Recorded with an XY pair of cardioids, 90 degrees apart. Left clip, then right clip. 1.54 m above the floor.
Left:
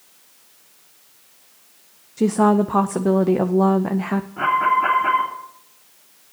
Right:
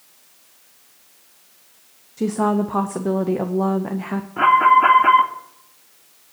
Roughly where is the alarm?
Ahead right.